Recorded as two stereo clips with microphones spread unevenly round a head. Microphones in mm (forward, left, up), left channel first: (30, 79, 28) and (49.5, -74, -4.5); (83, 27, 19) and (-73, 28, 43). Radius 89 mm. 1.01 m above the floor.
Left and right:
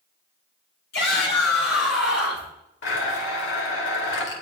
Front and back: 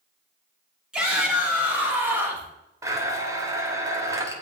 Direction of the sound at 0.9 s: 95° left.